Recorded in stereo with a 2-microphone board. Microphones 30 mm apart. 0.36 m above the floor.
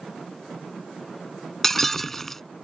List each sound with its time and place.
1.6 s breaking glass: 10° left (ahead or behind)